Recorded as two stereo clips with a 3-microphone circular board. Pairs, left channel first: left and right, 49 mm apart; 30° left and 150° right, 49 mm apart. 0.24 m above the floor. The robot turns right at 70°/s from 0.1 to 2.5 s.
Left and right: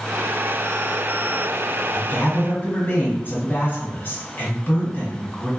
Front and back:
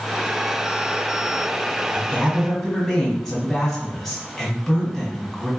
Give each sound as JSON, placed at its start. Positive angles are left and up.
{"t": 1.9, "sound": "a woman speaking", "azimuth_deg": 75, "distance_m": 1.4}